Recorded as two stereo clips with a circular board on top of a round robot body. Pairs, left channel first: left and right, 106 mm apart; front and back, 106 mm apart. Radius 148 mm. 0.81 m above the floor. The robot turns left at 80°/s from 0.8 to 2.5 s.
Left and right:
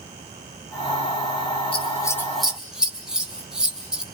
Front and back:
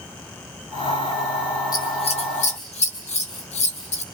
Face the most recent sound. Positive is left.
turn(degrees=-5)